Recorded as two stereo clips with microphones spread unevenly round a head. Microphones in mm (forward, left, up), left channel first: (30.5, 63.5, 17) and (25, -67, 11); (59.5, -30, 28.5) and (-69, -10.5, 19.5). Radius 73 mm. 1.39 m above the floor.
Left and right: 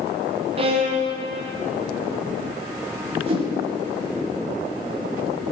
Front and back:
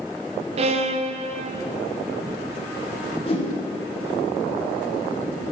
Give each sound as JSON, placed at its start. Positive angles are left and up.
{"t": 0.6, "sound": "a violin", "azimuth_deg": -145, "distance_m": 0.6}
{"t": 3.3, "sound": "a whoosh", "azimuth_deg": -50, "distance_m": 1.5}